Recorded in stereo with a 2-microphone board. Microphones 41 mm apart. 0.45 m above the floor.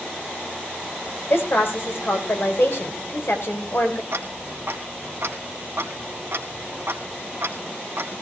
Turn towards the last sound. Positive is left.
turn(degrees=-70)  # may be behind; listen again after turning